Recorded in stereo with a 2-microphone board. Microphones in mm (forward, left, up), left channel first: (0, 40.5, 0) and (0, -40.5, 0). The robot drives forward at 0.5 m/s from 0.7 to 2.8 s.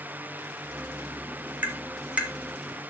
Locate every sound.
1.6 s tapping: 20° right (ahead or behind), 1.3 m